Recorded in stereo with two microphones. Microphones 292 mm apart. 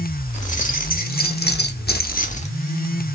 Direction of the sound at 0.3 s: 25° left (ahead or behind).